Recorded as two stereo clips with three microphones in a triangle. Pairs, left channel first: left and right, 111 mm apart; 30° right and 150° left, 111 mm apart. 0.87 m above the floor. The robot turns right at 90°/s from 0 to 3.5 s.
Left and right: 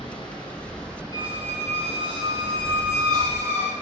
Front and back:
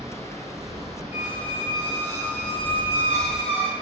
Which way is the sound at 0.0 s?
105° left.